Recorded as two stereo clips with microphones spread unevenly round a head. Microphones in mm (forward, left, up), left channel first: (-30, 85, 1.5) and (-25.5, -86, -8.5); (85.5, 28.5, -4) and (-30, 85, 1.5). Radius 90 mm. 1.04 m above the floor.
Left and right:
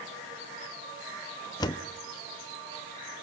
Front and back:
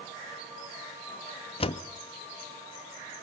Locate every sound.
1.6 s a door slam: 20° left, 0.9 m